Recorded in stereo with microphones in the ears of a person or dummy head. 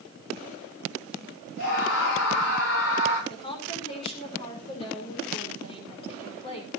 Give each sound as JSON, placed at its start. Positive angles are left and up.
{"t": 1.6, "sound": "a scream", "side_deg": 70, "distance_m": 9.5}
{"t": 3.3, "sound": "a woman speaking", "side_deg": 35, "distance_m": 5.5}